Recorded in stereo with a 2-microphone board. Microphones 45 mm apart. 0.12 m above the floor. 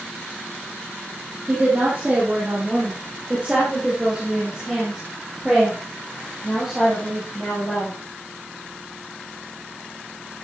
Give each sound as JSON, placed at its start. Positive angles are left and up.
{"t": 1.5, "sound": "a woman speaking", "side_deg": -35, "distance_m": 5.0}